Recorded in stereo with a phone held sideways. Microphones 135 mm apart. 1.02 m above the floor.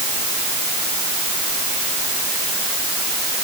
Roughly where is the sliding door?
No sliding door in this recording.